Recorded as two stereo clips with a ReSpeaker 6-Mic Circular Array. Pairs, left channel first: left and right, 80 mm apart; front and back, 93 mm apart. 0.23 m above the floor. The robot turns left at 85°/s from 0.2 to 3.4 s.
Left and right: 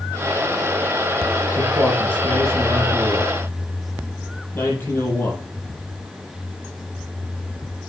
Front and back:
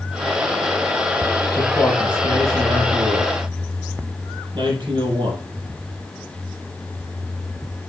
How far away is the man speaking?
About 7.5 m.